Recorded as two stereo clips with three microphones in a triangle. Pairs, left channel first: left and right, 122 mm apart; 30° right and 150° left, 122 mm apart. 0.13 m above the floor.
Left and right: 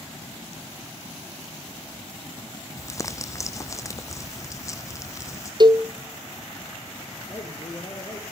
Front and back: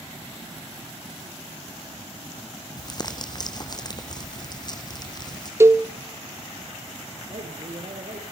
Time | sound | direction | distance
2.8 | crumpling | 25° left | 1.8 m
5.6 | a cowbell | 140° right | 0.9 m
7.3 | a man speaking | 145° left | 3.5 m